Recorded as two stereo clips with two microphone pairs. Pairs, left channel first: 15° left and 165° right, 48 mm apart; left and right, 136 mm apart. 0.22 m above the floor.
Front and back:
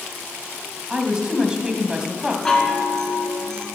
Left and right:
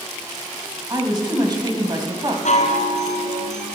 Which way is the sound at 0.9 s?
105° right.